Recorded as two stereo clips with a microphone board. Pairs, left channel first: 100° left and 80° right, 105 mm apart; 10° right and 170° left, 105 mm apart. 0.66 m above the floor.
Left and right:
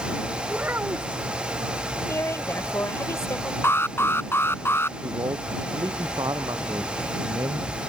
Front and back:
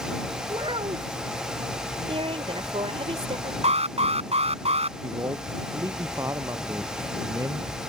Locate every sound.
0.5 s a child speaking: 150° right
2.1 s a woman speaking: 160° left
3.6 s an alarm: 170° left
5.0 s a man speaking: 130° right